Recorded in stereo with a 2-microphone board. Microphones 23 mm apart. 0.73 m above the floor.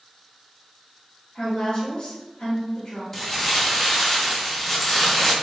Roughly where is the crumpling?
Centre.